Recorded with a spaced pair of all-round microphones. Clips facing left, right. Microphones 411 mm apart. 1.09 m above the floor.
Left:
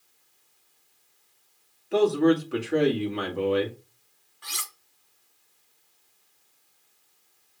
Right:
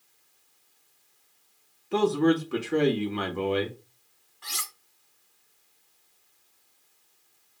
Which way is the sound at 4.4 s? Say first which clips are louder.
Even; 5° right (ahead or behind).